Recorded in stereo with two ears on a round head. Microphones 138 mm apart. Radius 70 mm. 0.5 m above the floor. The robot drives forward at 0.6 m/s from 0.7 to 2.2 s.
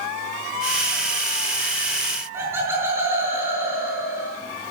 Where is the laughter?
15° right (ahead or behind), 8 m.